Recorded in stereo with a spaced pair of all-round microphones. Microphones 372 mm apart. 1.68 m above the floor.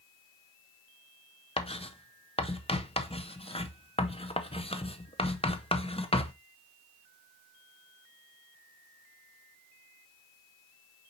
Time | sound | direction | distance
1.6 | writing | 15° left (ahead or behind) | 0.6 m